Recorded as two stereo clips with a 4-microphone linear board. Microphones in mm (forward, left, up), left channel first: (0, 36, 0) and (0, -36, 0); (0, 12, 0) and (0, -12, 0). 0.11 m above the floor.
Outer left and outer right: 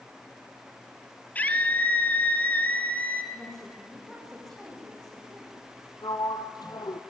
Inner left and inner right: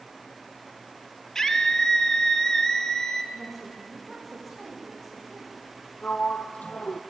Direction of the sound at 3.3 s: 5° left (ahead or behind).